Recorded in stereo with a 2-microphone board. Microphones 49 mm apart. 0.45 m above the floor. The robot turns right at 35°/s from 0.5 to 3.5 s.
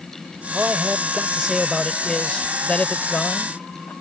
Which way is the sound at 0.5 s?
40° right.